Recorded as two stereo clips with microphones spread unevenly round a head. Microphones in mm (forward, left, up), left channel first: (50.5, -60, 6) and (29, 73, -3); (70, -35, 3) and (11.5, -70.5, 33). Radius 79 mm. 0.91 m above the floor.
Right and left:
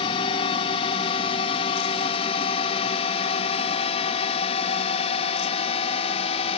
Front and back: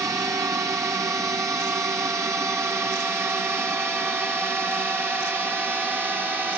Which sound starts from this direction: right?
A drone, at 0.0 s.